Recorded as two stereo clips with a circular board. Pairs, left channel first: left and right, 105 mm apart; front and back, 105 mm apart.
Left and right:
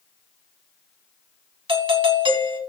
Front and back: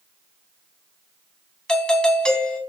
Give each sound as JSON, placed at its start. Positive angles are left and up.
{"t": 1.7, "sound": "a doorbell", "azimuth_deg": -80, "distance_m": 3.0}